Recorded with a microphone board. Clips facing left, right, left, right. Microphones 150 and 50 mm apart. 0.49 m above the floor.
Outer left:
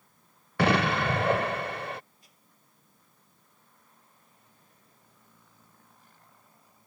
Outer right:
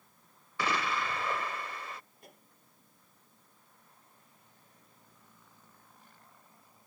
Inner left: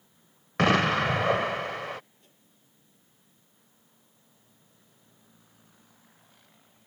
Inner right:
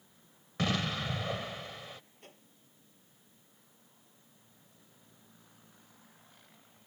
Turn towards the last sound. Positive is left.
turn(degrees=-55)  # may be behind; listen again after turning